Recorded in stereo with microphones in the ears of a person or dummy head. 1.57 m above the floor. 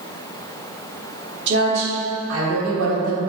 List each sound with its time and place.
1.5 s a woman speaking: 65° right (ahead or behind), 1.4 m; by 3.2 s 80° right, 2.5 m